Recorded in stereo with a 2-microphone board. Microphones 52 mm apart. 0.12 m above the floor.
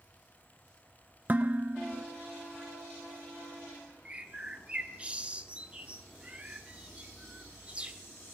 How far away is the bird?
About 1.2 m.